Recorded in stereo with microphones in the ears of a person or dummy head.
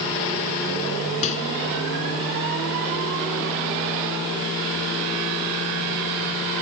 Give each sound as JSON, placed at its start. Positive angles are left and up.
{"t": 1.2, "sound": "a microwave", "side_deg": 40}